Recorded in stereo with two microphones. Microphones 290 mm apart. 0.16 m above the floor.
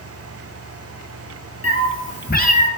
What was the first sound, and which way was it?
A cat meowing, 55° left (ahead or behind).